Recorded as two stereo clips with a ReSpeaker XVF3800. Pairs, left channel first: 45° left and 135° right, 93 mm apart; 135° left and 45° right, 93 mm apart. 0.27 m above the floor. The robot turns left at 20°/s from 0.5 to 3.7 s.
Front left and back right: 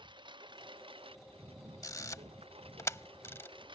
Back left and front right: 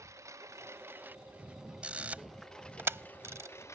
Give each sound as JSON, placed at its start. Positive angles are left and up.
{"t": 0.0, "sound": "a lawn mower", "azimuth_deg": -105}
{"t": 1.8, "sound": "a camera shutter", "azimuth_deg": 25}